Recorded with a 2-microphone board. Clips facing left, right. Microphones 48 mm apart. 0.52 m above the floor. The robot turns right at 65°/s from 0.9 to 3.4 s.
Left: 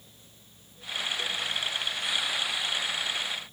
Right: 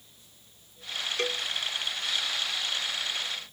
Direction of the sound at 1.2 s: 80° right.